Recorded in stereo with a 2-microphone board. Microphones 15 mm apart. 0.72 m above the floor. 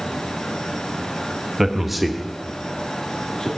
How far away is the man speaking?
About 1.0 m.